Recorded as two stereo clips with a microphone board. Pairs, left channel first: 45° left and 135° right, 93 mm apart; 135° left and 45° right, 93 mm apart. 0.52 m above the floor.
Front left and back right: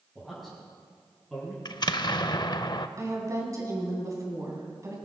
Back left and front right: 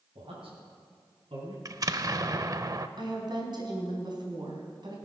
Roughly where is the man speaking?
Ahead right.